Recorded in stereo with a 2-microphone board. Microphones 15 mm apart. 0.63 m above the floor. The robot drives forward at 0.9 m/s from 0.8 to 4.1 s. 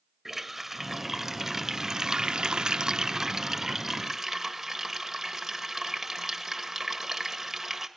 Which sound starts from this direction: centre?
A running tap, at 0.2 s.